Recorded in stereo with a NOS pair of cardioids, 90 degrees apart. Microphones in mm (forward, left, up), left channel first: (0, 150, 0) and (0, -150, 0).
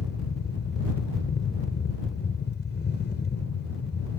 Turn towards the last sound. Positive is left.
turn(degrees=35)